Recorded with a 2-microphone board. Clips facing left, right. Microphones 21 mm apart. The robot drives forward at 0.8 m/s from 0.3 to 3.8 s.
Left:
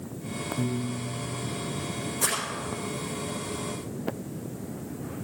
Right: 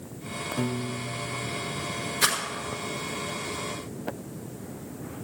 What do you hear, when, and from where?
0.6 s a piano: 80° right, 0.7 m; by 1.6 s 40° right (ahead or behind), 1.0 m
2.2 s a rattle: 70° right (ahead or behind), 5 m; by 2.4 s 75° right (ahead or behind), 5 m